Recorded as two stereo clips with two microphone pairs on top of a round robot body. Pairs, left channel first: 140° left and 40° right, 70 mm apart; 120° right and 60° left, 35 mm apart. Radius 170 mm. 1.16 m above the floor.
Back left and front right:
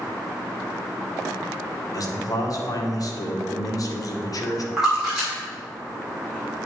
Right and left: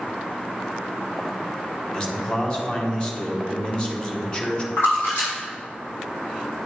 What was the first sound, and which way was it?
A man speaking, 175° left.